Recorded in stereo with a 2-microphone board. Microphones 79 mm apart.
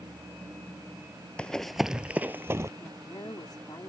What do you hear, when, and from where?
1.4 s running footsteps: 15° left (ahead or behind); by 2.7 s 35° right (ahead or behind)
2.8 s a woman speaking: 65° left (ahead or behind)